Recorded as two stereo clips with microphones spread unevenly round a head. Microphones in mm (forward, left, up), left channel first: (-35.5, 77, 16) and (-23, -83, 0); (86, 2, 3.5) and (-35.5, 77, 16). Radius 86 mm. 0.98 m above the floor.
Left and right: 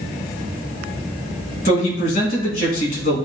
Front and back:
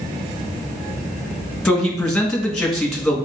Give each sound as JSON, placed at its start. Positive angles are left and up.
{"t": 1.6, "sound": "a man speaking", "azimuth_deg": 50, "distance_m": 1.7}